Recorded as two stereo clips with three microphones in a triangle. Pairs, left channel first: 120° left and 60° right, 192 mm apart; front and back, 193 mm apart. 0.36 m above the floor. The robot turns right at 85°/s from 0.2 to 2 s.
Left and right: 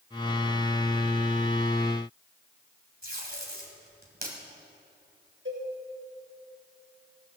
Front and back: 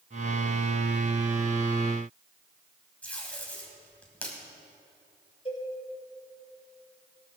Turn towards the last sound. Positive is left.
turn(degrees=-60)